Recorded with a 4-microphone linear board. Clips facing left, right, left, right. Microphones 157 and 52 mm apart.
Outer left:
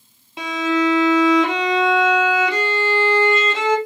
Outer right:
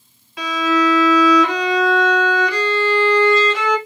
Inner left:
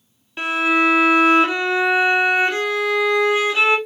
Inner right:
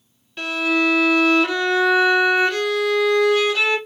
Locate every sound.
0.4 s a violin: 25° left (ahead or behind), 0.6 m